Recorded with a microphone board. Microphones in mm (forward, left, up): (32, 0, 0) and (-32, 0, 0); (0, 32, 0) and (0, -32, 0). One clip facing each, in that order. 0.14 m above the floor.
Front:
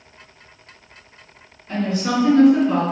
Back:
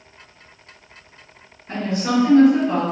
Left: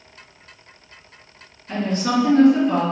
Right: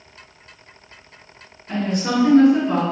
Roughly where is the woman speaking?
Behind.